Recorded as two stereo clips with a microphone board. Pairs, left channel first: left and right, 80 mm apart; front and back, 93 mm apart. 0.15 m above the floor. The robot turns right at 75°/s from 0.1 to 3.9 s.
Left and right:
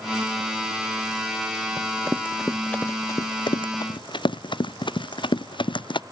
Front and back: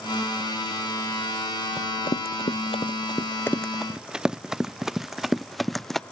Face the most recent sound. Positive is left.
turn(degrees=90)